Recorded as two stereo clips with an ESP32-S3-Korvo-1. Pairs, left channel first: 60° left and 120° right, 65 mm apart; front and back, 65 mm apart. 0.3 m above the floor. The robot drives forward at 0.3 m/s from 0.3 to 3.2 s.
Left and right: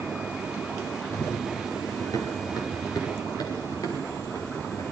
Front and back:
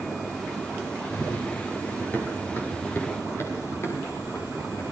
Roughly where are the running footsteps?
Ahead left.